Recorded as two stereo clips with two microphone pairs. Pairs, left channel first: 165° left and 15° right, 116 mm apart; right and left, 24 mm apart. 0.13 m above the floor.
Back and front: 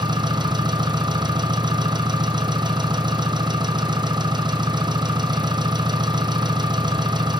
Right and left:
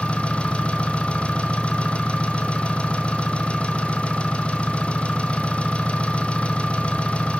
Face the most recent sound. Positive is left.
turn(degrees=-60)